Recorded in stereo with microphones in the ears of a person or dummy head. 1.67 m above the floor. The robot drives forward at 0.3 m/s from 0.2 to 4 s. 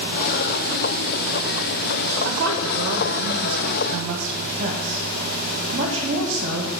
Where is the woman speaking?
60° right (ahead or behind), 0.6 m; by 6.7 s 35° right (ahead or behind), 0.9 m.